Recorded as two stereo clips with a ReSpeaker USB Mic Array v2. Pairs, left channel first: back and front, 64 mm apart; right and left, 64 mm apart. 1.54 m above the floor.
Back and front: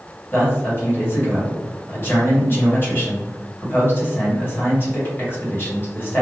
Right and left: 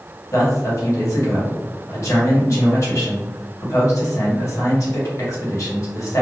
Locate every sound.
0.3 s a man speaking: 125° right, 1.2 m